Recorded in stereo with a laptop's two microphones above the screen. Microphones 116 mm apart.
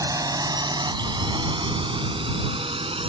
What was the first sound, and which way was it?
A drone, 30° right (ahead or behind).